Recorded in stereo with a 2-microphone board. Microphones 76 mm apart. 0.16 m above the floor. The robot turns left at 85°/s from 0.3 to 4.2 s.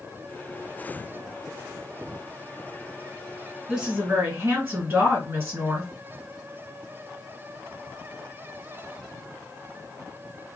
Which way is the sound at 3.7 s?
10° right.